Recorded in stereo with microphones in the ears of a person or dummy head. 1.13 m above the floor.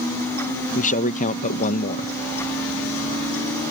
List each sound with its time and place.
0.8 s a man speaking: 40° left (ahead or behind)